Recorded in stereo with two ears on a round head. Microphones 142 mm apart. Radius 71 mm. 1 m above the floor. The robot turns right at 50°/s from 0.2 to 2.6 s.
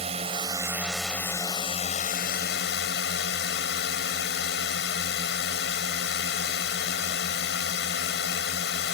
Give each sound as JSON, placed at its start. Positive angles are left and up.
{"t": 0.0, "sound": "a drone", "azimuth_deg": -40}